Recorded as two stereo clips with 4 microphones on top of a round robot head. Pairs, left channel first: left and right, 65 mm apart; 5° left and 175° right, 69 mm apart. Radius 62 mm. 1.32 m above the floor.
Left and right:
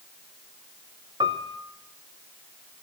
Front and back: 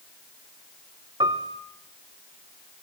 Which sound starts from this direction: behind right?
A piano, at 1.2 s.